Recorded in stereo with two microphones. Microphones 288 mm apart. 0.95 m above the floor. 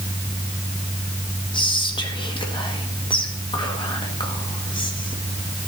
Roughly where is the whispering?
Centre.